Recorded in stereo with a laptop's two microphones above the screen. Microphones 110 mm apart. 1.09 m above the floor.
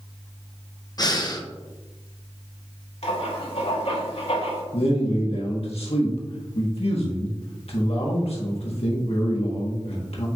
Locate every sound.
1.0 s breathing: 35° left (ahead or behind), 0.8 m
3.0 s writing: 65° left (ahead or behind), 2.5 m
4.7 s a man speaking: 65° left (ahead or behind), 1.4 m